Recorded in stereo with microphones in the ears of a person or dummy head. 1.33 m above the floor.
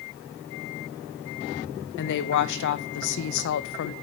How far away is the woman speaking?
About 0.7 m.